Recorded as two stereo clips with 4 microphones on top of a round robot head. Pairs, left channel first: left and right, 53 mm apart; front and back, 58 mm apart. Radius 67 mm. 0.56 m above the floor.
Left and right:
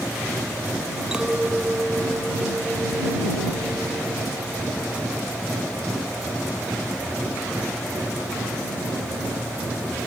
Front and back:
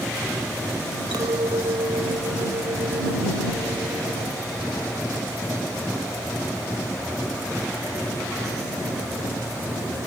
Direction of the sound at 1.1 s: 165° right.